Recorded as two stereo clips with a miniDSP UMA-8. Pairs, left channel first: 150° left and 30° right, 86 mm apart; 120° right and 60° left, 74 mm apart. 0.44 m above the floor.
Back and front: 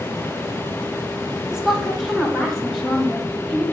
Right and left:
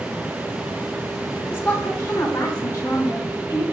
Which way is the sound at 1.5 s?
105° right.